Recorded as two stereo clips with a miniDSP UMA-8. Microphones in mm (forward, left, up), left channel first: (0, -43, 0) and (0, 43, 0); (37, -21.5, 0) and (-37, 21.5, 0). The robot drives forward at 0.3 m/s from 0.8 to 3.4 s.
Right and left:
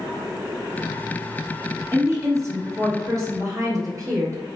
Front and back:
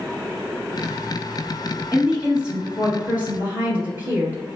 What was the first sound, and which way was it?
A woman speaking, 75° left.